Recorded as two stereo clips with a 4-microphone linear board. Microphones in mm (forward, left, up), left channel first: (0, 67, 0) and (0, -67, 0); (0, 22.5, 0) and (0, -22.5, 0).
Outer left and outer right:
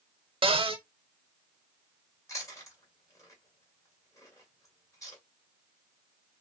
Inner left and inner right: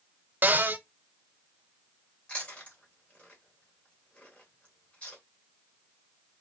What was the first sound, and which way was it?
A cupboard door, 40° right (ahead or behind).